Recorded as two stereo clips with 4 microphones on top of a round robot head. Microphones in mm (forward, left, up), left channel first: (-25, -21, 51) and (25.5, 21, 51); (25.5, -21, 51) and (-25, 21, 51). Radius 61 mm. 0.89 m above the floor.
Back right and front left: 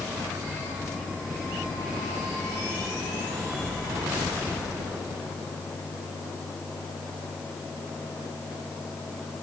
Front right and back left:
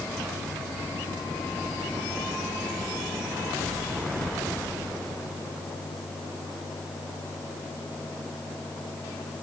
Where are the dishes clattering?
I don't hear dishes clattering.